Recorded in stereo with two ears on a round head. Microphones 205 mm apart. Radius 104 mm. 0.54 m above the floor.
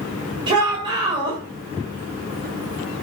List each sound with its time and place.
0.5 s a shout: 20° right (ahead or behind), 3 m